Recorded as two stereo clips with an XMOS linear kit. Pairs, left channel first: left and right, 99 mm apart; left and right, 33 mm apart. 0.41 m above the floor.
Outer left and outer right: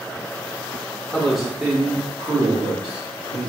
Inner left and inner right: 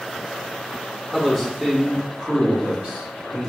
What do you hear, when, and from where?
1.1 s a man speaking: 10° left (ahead or behind), 0.8 m; by 3.5 s 55° right (ahead or behind), 1.5 m